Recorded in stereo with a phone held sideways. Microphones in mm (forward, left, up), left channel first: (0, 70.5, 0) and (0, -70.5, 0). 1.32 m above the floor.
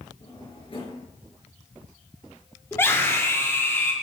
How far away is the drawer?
About 5 m.